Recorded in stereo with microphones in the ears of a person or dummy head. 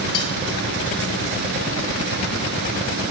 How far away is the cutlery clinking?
About 1.7 m.